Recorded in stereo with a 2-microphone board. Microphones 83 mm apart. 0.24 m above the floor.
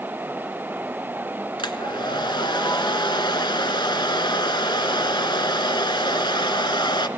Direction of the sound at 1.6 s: 70° left (ahead or behind).